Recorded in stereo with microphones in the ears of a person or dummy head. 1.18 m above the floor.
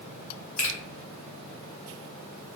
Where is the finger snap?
80° left, 1.3 m.